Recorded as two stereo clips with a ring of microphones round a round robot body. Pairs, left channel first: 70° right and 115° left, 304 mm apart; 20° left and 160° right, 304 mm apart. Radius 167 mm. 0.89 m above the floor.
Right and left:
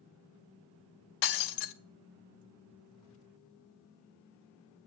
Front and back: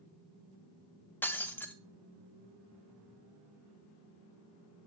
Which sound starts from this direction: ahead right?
Breaking glass, at 1.2 s.